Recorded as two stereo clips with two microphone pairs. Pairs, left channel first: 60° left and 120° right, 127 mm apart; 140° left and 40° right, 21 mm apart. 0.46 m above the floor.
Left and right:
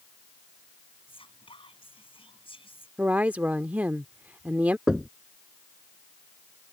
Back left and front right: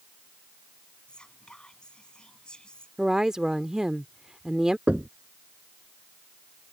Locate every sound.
1.1 s whispering: 100° left
3.0 s a woman speaking: 50° right
4.9 s knocking: 35° right